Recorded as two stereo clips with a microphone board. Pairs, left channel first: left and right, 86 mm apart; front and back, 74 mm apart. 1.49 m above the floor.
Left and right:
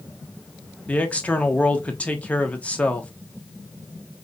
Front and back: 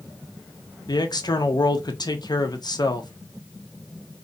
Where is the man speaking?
15° left, 1.1 m.